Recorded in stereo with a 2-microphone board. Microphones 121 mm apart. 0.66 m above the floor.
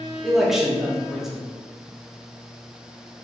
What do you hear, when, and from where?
0.2 s a man speaking: centre (ahead or behind), 1.0 m